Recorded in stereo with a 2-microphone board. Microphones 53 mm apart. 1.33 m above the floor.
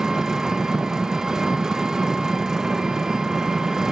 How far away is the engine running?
About 0.8 m.